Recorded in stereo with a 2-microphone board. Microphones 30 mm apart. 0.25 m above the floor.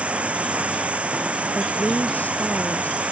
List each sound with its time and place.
0.0 s running water: 45° right (ahead or behind)
1.6 s a woman speaking: 60° left (ahead or behind)